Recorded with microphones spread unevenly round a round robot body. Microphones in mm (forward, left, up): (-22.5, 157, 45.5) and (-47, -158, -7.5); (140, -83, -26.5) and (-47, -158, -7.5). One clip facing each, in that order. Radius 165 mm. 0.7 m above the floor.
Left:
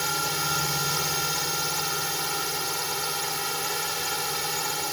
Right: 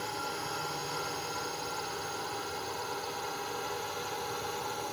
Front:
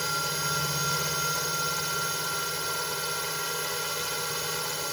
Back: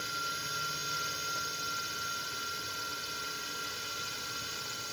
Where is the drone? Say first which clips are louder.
Left 5 dB, front 10 dB; 50° left; by 4.9 s 45° left.